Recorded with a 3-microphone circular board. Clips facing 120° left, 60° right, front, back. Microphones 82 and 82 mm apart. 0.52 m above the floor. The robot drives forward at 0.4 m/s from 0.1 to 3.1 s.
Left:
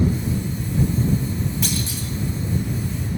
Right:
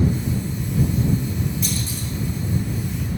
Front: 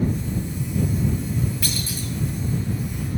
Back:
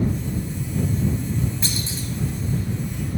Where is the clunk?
115° left, 1.4 m; by 2.1 s 120° left, 1.5 m.